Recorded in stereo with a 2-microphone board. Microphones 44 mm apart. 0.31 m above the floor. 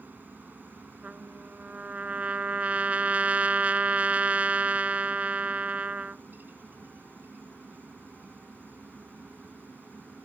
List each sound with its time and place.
0.0 s a helicopter: 45° right (ahead or behind)
1.0 s a trumpet: 35° right (ahead or behind)